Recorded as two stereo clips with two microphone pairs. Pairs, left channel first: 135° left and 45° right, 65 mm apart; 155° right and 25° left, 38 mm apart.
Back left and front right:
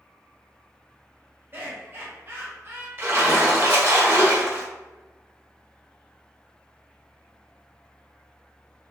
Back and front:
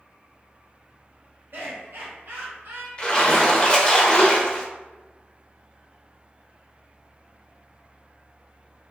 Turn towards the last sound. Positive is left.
turn(degrees=-95)